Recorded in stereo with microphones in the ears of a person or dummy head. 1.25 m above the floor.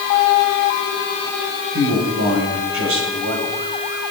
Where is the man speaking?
75° right (ahead or behind), 8 m.